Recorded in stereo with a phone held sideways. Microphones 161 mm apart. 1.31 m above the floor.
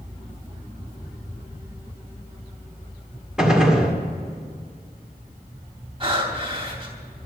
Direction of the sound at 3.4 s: 5° right (ahead or behind).